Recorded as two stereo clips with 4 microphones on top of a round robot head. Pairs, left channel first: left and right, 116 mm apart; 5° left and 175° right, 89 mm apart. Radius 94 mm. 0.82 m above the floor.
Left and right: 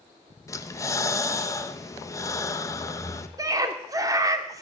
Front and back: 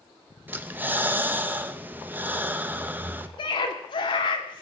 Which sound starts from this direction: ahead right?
A scream, at 3.4 s.